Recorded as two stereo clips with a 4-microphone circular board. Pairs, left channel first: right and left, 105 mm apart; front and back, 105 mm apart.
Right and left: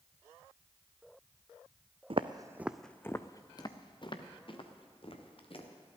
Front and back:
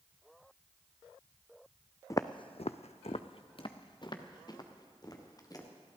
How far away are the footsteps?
About 0.5 m.